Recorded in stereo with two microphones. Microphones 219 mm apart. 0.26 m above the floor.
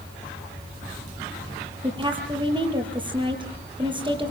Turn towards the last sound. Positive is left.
turn(degrees=-20)  # may be behind; listen again after turning